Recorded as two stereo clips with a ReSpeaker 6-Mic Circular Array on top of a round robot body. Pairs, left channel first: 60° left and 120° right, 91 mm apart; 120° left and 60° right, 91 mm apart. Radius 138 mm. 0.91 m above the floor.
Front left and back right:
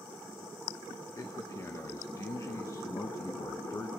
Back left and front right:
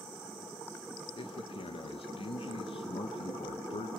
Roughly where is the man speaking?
Behind left.